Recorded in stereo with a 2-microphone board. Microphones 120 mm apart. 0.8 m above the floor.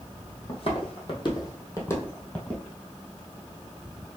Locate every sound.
0.5 s footsteps: 55° left (ahead or behind), 1.5 m; by 2.6 s 5° left (ahead or behind), 1.3 m